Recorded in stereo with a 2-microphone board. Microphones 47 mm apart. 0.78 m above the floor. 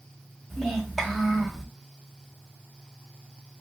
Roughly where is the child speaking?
Centre.